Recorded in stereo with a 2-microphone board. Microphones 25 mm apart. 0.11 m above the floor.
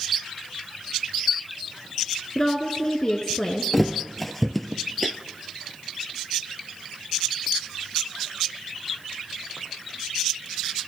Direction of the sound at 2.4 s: 25° left (ahead or behind).